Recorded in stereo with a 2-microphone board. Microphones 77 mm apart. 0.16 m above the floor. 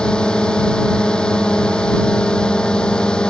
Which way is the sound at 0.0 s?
10° left (ahead or behind).